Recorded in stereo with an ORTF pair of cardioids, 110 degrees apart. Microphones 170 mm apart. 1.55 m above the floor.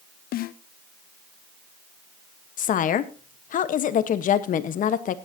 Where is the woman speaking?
55° left, 1.3 m.